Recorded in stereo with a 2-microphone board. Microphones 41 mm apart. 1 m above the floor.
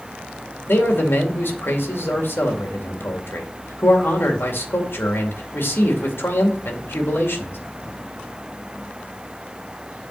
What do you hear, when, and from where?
0.7 s a man speaking: 60° left (ahead or behind), 2 m